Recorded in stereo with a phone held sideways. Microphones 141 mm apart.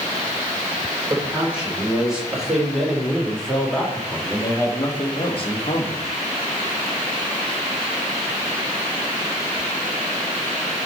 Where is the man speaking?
10° right (ahead or behind), 4 m; by 6.0 s 55° left (ahead or behind), 1.5 m.